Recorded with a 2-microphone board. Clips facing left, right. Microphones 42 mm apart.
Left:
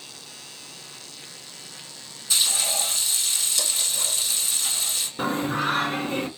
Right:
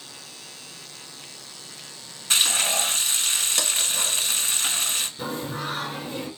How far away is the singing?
About 1.1 m.